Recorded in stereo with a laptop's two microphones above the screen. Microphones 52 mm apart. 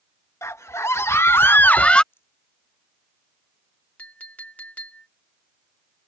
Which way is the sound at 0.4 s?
65° left (ahead or behind).